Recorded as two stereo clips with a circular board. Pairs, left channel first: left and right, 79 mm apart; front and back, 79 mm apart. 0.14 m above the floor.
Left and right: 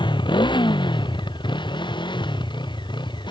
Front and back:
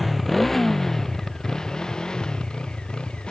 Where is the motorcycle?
90° left; by 3.3 s 80° left.